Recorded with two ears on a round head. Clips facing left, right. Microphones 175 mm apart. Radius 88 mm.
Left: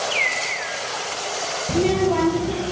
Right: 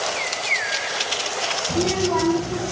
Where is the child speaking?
40° left (ahead or behind), 7 m.